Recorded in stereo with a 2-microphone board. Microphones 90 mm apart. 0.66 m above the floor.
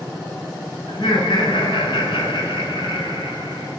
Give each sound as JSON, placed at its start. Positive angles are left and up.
{"t": 0.9, "sound": "laughter", "side_deg": 70, "distance_m": 4.5}